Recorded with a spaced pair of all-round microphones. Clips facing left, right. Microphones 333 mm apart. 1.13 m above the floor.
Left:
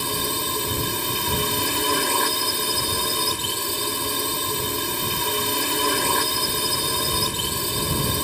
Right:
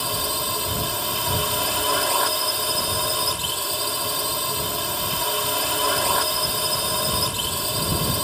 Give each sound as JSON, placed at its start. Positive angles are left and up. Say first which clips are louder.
{"t": 0.0, "sound": "a drone", "louder": "left 2 dB", "side_deg": 30}